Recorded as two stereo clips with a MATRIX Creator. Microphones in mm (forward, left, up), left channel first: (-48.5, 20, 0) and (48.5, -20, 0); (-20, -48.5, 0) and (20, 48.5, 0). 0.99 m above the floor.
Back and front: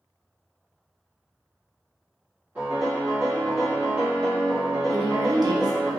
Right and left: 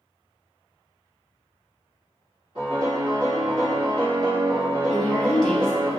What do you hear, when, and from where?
2.5 s a piano: 45° left, 1.8 m
4.9 s a woman speaking: 35° right, 0.7 m